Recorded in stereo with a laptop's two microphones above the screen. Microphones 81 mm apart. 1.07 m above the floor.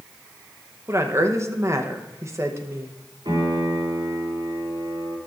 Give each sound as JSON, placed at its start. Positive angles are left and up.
{"t": 0.9, "sound": "a woman speaking", "side_deg": -35, "distance_m": 0.8}
{"t": 3.2, "sound": "a piano", "side_deg": -70, "distance_m": 3.0}